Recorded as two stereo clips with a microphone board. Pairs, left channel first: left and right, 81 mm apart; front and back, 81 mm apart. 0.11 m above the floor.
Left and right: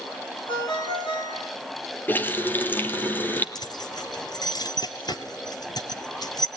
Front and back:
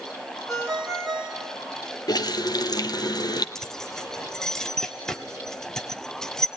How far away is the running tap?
About 2 m.